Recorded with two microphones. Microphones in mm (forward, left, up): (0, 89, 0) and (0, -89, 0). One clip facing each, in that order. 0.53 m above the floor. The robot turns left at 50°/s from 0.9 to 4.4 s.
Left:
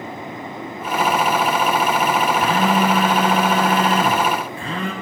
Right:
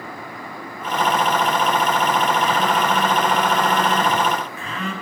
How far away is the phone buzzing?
About 1.9 m.